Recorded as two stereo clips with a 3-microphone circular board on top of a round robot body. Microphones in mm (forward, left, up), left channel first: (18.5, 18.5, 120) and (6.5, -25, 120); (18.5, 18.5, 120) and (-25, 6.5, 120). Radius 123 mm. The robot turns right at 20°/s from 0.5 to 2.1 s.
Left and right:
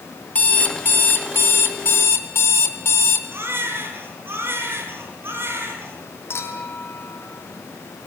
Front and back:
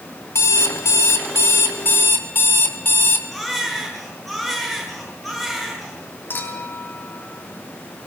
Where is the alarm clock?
25° left, 2.5 m; by 3.2 s 55° left, 2.5 m.